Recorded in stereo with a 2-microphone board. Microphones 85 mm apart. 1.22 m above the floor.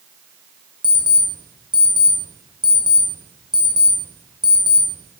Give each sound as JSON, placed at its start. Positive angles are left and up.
{"t": 0.8, "sound": "an alarm clock", "side_deg": 55, "distance_m": 1.6}